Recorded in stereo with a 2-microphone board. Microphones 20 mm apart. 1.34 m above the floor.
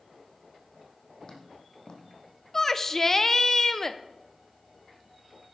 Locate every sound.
1.2 s footsteps: 55° left (ahead or behind), 2.5 m
2.5 s a shout: 25° left (ahead or behind), 0.6 m